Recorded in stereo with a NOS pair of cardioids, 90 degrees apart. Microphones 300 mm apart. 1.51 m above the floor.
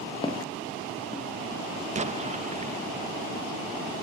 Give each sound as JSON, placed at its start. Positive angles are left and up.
{"t": 0.2, "sound": "footsteps", "azimuth_deg": 15, "distance_m": 4.5}
{"t": 1.9, "sound": "an explosion", "azimuth_deg": -25, "distance_m": 1.7}